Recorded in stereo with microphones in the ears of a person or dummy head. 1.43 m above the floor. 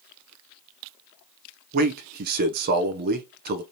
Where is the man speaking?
45° right (ahead or behind), 0.6 m.